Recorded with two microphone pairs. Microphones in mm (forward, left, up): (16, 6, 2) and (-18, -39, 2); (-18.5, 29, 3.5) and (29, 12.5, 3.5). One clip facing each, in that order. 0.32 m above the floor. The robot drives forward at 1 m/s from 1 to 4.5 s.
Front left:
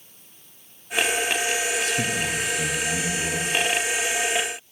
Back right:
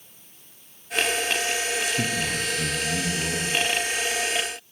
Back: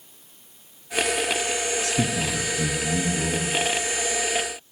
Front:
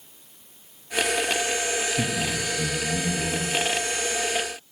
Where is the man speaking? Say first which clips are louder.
Front left 1 dB, back 1 dB; 150° left, 3.5 m; by 3.6 s 160° left, 5.5 m.